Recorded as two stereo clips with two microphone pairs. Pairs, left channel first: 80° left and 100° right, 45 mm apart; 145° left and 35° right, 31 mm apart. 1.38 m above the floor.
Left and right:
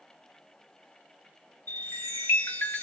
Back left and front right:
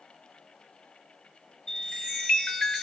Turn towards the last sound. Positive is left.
turn(degrees=85)